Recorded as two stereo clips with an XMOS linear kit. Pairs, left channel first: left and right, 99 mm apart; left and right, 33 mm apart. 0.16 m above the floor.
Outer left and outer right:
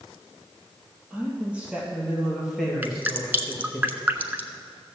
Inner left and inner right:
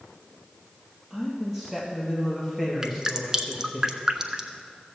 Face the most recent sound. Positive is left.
turn(degrees=-20)  # may be behind; listen again after turning